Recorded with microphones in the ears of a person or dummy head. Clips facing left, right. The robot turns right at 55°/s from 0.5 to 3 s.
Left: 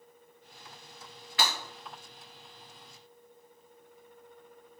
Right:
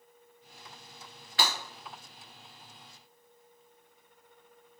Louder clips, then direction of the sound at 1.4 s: Even; 5° left (ahead or behind).